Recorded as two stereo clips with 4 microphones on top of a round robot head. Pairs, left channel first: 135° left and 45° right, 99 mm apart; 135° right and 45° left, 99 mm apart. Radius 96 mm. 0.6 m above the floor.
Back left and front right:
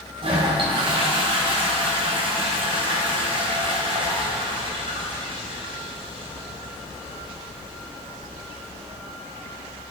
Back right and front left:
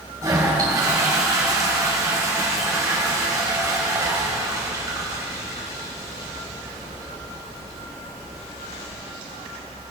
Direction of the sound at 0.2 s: 15° right.